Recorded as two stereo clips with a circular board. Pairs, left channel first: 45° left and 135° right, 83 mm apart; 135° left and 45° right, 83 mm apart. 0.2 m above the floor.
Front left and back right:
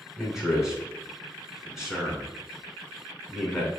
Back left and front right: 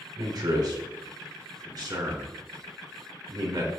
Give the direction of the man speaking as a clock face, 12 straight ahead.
2 o'clock.